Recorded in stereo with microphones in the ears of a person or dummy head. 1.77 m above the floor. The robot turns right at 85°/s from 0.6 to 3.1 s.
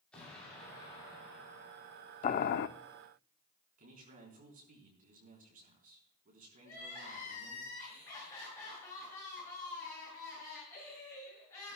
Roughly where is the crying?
Centre.